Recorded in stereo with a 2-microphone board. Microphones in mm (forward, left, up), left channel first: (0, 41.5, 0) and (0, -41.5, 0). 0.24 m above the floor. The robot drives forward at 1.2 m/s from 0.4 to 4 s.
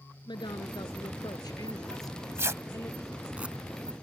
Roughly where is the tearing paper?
Right.